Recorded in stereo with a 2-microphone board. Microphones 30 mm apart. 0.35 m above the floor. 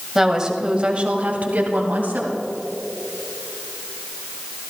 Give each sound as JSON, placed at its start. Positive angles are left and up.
{"t": 0.1, "sound": "a woman speaking", "side_deg": -10, "distance_m": 1.7}